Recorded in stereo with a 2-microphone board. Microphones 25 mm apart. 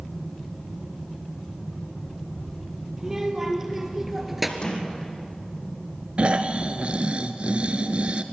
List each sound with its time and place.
3.0 s a child speaking: 15° right (ahead or behind), 4 m; by 4.5 s 5° right (ahead or behind), 2.5 m
4.6 s a sliding door: 35° left (ahead or behind), 5.5 m
6.2 s snoring: 50° right (ahead or behind), 1.0 m